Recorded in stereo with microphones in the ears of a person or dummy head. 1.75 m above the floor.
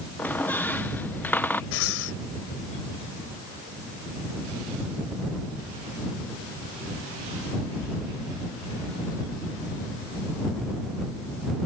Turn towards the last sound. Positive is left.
turn(degrees=55)  # may be behind; listen again after turning